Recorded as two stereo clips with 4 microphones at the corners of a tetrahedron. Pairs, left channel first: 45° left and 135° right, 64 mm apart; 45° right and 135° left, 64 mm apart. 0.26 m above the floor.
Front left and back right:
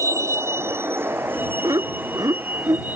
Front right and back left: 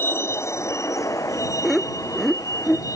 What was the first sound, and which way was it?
A vehicle, 100° right.